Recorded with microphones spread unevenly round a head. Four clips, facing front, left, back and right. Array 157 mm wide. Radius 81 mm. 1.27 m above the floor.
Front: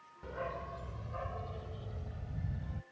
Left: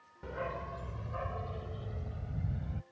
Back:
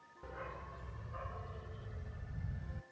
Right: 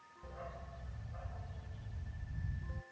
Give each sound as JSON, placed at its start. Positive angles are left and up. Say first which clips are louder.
{"t": 0.2, "sound": "a dog barking", "louder": "left 11 dB, front 7 dB", "azimuth_deg": 65}